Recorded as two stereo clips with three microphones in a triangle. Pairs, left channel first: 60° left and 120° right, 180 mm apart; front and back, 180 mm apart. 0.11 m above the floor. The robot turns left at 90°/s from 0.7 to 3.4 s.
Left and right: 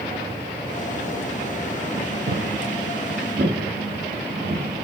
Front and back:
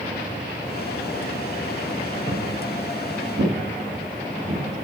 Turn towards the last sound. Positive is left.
turn(degrees=-170)